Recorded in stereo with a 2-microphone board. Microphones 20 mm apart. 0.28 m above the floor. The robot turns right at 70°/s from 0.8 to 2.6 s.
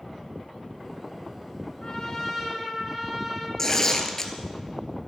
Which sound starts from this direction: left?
Tearing paper, at 3.6 s.